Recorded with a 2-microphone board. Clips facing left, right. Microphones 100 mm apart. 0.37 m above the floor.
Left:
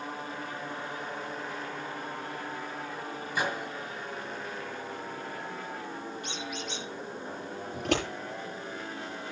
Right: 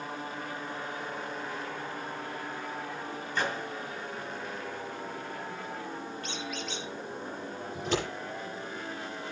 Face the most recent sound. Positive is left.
turn(degrees=60)  # may be behind; listen again after turning